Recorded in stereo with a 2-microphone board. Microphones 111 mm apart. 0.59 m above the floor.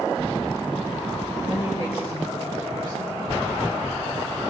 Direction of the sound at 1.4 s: 55° left (ahead or behind).